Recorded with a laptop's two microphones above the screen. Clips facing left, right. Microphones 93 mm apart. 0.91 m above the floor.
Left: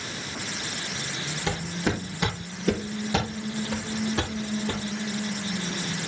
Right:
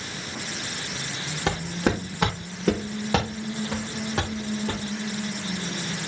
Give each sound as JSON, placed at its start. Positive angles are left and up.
{"t": 1.5, "sound": "footsteps", "side_deg": -70, "distance_m": 5.0}